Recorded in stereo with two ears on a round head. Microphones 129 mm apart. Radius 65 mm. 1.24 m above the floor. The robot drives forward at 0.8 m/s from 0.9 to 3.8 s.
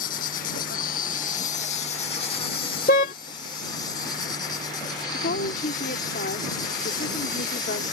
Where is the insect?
65° left (ahead or behind); by 7.9 s 30° left (ahead or behind).